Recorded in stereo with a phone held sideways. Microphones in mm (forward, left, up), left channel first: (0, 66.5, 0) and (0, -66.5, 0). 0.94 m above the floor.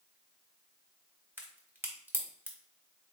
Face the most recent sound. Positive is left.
turn(degrees=-15)  # may be behind; listen again after turning